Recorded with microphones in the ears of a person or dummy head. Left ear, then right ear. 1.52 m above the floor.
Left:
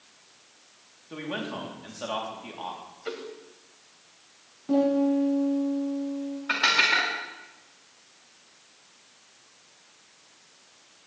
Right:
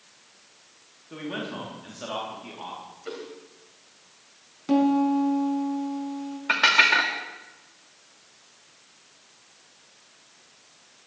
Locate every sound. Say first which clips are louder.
1.1 s a man speaking: even; 20° left (ahead or behind), 3.5 m
3.0 s a whoosh: left 2 dB; 30° left (ahead or behind), 2.5 m
4.7 s a piano: right 1 dB; 75° right (ahead or behind), 5 m
6.5 s dishes clattering: right 3 dB; 20° right (ahead or behind), 2 m